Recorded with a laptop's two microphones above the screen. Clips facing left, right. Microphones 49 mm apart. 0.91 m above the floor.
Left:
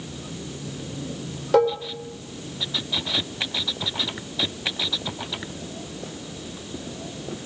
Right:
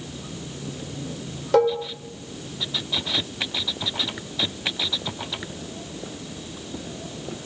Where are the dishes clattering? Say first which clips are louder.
Even; centre (ahead or behind), 2 m.